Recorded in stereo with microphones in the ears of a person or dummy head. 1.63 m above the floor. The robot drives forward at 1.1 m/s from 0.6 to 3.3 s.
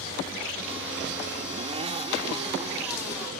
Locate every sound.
1.4 s a zipper: 35° right (ahead or behind); by 2.9 s 25° right (ahead or behind)